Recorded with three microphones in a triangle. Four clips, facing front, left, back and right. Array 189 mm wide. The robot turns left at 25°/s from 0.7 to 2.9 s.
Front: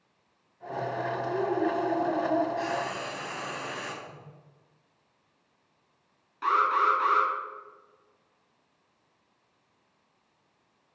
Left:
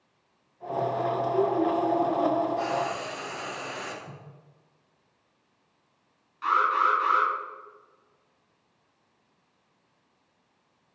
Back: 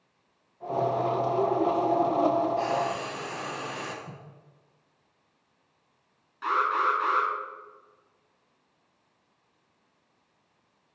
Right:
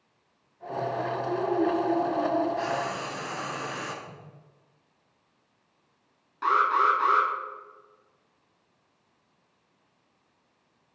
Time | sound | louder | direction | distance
1.2 | a woman speaking | left 1 dB, even | 50° left | 3.5 m
2.6 | frying | left 1 dB, back 4 dB | 100° right | 5 m
4.0 | a whoosh | even, back 2 dB | 165° left | 4.5 m
6.4 | an alarm | right 1 dB, front 1 dB | 65° right | 7 m